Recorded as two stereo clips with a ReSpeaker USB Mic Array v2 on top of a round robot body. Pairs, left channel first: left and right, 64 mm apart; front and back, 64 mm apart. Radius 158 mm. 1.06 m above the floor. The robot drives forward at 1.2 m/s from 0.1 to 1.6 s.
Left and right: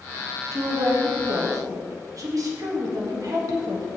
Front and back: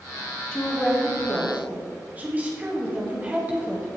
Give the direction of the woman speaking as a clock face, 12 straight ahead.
3 o'clock.